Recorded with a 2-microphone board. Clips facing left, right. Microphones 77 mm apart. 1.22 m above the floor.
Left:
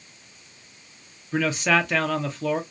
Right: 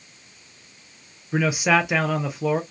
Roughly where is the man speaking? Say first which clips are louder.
Right 2 dB; centre.